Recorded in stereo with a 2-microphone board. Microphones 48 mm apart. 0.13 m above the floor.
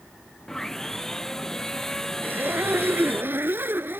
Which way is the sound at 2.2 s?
50° right (ahead or behind).